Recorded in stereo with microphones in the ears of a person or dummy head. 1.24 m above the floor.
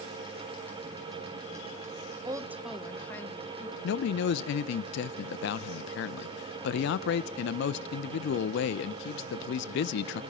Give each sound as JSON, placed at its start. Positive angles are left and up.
{"t": 2.2, "sound": "a woman speaking", "side_deg": -20, "distance_m": 1.0}
{"t": 3.8, "sound": "a man speaking", "side_deg": 60, "distance_m": 0.6}